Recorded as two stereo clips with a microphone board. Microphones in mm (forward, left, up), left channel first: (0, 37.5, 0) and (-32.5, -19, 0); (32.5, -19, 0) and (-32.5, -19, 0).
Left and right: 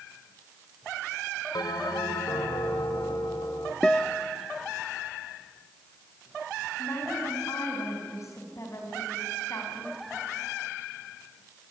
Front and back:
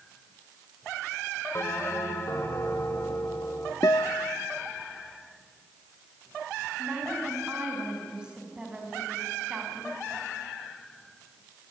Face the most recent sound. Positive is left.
turn(degrees=105)